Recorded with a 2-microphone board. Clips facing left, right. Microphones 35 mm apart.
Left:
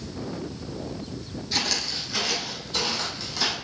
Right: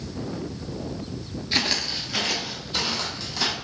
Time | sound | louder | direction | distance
1.5 | footsteps | right 3 dB | 40° right (ahead or behind) | 0.6 m